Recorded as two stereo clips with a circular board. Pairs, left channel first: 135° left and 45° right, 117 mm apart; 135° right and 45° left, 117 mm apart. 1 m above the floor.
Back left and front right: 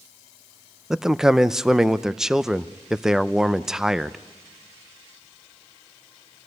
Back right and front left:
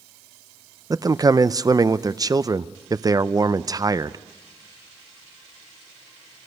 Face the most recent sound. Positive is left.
turn(degrees=35)